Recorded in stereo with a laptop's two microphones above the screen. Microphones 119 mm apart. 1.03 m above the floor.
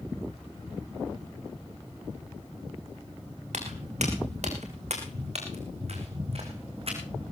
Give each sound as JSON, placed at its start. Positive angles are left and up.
{"t": 3.5, "sound": "footsteps", "side_deg": -75, "distance_m": 5.0}